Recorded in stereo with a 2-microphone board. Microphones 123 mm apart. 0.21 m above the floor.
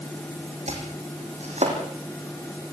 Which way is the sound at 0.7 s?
65° right (ahead or behind).